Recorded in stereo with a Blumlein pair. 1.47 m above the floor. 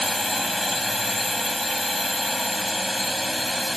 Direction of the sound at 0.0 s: 5° left.